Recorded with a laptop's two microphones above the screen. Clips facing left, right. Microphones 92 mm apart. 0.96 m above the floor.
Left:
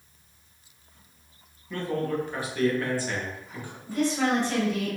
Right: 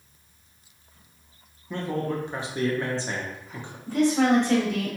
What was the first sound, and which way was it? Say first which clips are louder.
A man speaking: even; 25° right (ahead or behind).